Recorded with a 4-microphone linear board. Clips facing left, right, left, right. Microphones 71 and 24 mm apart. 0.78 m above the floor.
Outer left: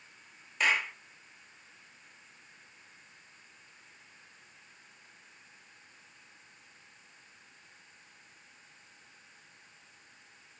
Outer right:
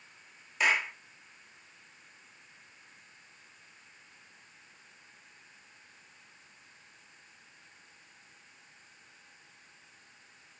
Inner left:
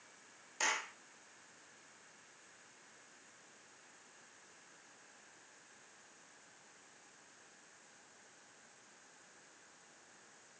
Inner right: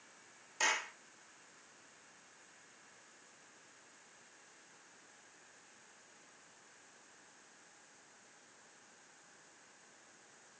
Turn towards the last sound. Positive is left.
turn(degrees=-5)  # may be behind; listen again after turning